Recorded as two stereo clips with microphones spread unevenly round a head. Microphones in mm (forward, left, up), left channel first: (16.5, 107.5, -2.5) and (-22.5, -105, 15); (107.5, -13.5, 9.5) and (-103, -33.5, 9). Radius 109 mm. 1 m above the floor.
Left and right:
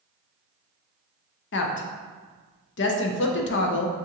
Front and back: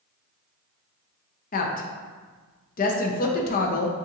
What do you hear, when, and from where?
1.5 s a woman speaking: 55° left, 0.6 m